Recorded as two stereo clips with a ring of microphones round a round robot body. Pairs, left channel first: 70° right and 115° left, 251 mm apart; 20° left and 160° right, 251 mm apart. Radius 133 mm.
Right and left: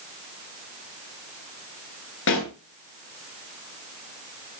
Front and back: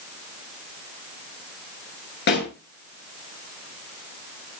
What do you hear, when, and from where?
2.3 s a pop: 25° right, 9.5 m